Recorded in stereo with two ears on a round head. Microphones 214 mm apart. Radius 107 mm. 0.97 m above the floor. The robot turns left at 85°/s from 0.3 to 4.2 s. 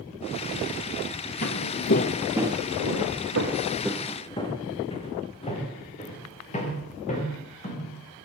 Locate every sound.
1.4 s footsteps: 35° left (ahead or behind), 1.7 m; by 7.9 s 30° left (ahead or behind), 9.5 m